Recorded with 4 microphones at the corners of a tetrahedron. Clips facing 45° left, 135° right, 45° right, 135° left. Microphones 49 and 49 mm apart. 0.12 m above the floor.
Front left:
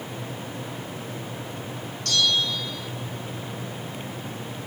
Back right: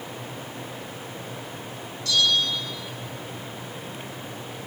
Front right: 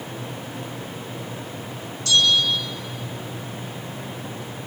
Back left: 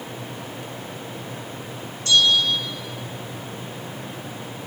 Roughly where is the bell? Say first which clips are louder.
Back right 1 dB, back left 1 dB; left.